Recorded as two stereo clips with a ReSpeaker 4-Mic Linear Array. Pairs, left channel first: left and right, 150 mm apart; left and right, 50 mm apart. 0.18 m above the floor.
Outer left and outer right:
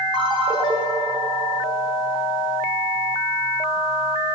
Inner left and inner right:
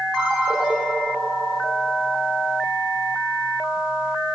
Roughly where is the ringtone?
Centre.